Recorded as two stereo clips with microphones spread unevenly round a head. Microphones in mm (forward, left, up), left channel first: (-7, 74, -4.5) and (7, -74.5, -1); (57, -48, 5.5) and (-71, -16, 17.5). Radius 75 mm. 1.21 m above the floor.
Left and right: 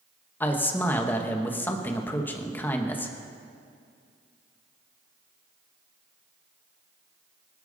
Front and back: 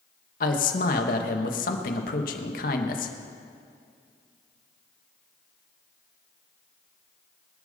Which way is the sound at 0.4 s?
15° left.